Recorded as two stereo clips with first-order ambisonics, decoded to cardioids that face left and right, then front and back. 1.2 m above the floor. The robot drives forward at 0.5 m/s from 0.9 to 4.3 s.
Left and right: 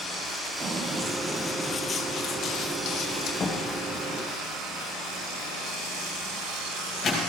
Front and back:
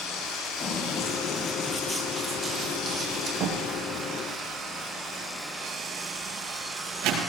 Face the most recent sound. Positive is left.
turn(degrees=155)